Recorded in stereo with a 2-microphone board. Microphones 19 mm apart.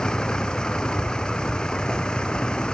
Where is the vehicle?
40° left (ahead or behind); by 2.7 s 45° left (ahead or behind).